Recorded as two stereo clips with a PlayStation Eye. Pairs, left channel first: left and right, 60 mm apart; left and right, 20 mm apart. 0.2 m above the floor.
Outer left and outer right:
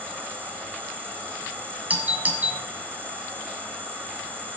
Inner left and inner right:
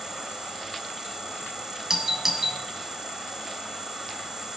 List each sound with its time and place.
0.0 s an insect: 35° right (ahead or behind), 2 m
1.9 s a doorbell: 25° right (ahead or behind), 1.6 m